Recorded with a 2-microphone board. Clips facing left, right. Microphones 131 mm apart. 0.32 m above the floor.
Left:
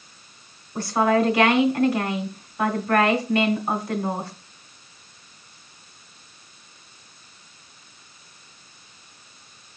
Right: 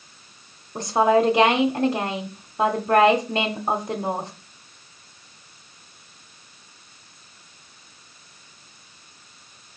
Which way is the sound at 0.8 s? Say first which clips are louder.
Right 2 dB; 30° right (ahead or behind).